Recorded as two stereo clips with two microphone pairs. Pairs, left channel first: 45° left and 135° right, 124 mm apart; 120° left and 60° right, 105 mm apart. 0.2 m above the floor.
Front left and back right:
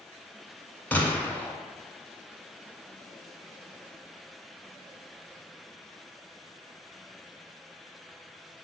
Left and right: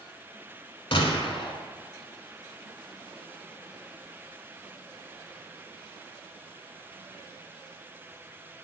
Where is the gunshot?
120° left, 0.7 m.